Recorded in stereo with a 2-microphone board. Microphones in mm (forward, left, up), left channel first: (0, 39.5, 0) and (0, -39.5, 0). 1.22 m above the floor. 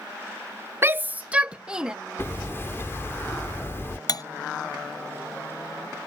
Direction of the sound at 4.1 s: 50° left (ahead or behind).